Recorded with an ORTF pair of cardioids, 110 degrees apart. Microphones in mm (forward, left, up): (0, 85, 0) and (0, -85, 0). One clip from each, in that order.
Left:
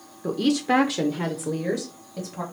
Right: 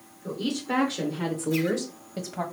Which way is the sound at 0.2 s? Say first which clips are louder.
Left 7 dB; 65° left.